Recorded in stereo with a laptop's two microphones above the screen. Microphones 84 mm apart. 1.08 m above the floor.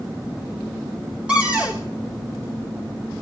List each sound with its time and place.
1.3 s a cupboard door: 15° right (ahead or behind), 3 m